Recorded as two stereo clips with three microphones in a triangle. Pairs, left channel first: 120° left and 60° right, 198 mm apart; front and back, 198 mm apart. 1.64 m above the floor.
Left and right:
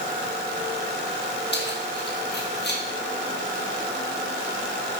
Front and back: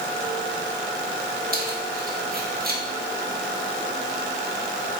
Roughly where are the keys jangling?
Behind left.